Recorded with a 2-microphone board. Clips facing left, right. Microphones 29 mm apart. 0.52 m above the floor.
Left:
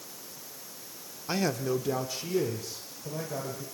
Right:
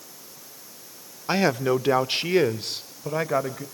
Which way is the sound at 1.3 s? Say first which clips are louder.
Right 7 dB; 30° right (ahead or behind).